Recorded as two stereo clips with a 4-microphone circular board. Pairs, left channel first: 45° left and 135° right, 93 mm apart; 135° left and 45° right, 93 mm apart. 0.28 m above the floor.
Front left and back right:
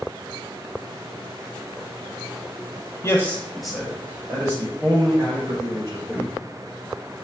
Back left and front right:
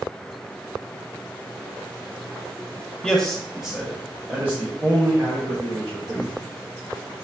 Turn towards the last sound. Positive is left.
turn(degrees=-105)